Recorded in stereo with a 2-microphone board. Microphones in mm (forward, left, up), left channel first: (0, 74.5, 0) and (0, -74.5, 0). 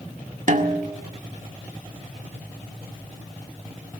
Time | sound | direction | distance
0.5 | a snare drum | 60° right (ahead or behind) | 1.8 m